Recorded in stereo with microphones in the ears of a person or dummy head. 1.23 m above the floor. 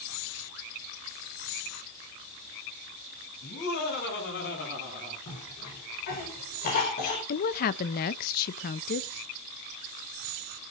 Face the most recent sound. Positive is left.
turn(degrees=50)  # may be behind; listen again after turning